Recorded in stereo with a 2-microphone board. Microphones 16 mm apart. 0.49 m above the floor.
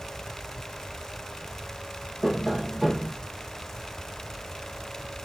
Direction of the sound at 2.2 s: 15° left (ahead or behind).